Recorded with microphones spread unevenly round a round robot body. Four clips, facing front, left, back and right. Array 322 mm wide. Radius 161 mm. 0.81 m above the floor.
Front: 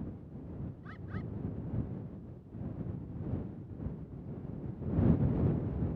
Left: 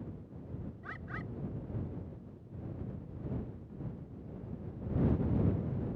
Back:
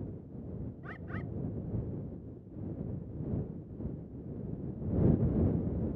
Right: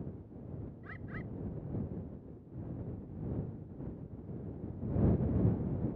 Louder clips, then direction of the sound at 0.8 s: Left 2 dB, back 2 dB; 165° left.